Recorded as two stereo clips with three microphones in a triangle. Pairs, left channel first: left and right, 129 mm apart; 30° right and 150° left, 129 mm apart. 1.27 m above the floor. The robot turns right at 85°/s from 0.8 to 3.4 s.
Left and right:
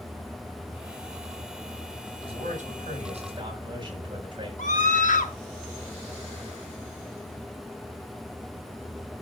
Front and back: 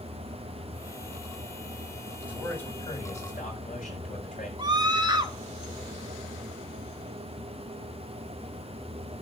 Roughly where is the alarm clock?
No alarm clock in this recording.